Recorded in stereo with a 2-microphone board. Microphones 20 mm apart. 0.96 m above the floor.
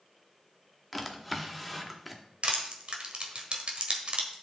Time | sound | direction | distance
0.9 | a drawer | 5° right (ahead or behind) | 0.9 m
2.4 | crushing | 55° right (ahead or behind) | 1.3 m